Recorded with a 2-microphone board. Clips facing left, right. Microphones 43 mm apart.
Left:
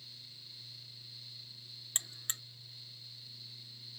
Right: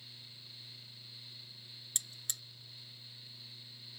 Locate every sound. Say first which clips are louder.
1.9 s a buzzer: left 3 dB; 40° left (ahead or behind)